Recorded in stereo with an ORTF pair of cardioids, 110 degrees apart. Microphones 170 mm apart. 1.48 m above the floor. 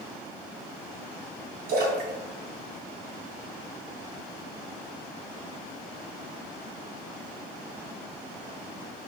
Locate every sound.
1.7 s a splash: 70° right, 3 m